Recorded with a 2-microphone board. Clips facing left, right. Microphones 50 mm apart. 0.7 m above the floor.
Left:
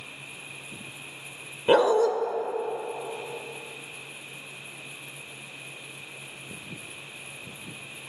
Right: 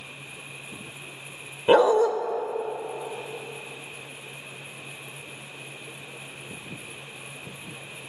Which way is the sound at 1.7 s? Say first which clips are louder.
Right 2 dB; 10° right (ahead or behind).